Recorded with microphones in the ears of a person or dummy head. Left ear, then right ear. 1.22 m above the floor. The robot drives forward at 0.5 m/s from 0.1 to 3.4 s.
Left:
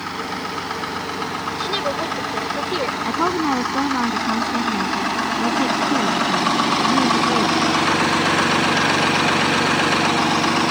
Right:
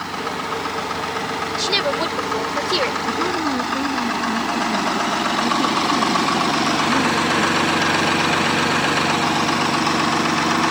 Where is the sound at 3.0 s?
35° left (ahead or behind).